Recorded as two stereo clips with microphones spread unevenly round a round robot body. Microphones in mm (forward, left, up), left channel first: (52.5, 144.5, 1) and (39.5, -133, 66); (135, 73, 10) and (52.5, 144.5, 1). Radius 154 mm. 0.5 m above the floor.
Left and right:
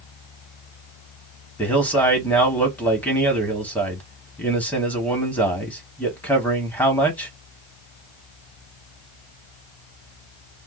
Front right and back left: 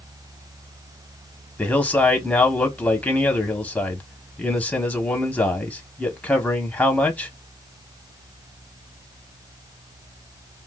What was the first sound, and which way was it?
A man speaking, 35° left.